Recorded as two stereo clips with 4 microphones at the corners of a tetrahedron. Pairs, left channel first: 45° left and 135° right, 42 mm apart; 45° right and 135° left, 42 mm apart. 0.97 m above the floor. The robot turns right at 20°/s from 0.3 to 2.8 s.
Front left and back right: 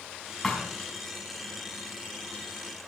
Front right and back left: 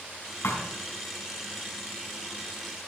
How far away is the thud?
About 4.5 m.